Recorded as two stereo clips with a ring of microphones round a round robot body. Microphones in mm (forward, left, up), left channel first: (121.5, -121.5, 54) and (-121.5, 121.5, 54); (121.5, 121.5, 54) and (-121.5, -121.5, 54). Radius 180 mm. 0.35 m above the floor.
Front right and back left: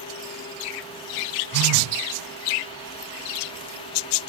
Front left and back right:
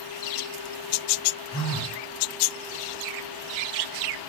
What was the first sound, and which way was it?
A phone buzzing, 85° left.